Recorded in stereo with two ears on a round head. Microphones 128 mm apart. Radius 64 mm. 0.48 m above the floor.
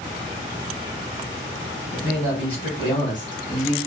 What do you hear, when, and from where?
1.9 s a man speaking: 45° left (ahead or behind), 3 m; by 3.8 s 25° left (ahead or behind), 2 m